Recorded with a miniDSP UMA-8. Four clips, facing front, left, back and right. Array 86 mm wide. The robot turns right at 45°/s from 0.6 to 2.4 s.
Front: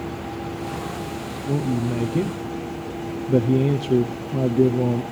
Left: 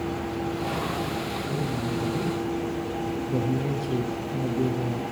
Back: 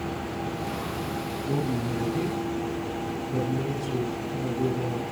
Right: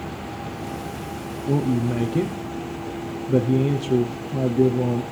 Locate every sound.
1.5 s a man speaking: 70° right, 4 m; by 5.0 s 25° right, 4 m